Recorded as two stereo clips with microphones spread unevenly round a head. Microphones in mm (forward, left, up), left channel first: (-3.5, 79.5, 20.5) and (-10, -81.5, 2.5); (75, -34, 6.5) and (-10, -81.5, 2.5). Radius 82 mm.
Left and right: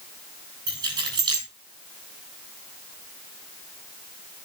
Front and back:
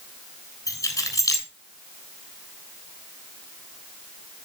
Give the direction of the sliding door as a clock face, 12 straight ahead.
I don't hear a sliding door.